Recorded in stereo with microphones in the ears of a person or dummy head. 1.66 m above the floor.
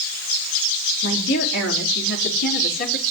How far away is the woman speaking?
About 4.5 m.